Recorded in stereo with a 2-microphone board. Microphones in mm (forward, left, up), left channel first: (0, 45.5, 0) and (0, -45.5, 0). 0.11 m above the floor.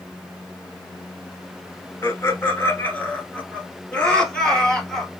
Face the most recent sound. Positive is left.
turn(degrees=5)  # may be behind; listen again after turning